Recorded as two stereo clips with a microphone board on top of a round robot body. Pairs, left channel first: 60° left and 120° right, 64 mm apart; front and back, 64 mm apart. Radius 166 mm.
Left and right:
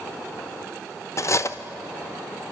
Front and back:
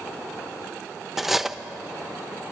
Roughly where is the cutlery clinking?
Left.